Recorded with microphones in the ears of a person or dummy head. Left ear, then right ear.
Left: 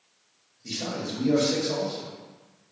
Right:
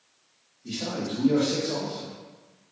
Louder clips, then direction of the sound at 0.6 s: Even; 55° left (ahead or behind).